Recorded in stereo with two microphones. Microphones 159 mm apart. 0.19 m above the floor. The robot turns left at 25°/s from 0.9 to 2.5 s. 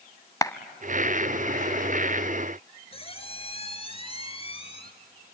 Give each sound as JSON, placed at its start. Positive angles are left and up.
{"t": 0.4, "sound": "a clap", "side_deg": 20, "distance_m": 0.8}
{"t": 2.9, "sound": "a squeak", "side_deg": 35, "distance_m": 1.9}